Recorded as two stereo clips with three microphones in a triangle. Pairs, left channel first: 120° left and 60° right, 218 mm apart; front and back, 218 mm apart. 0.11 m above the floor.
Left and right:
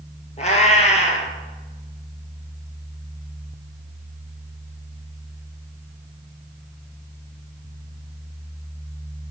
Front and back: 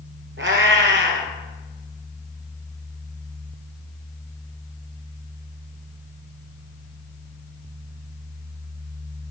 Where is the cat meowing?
170° left, 0.6 m.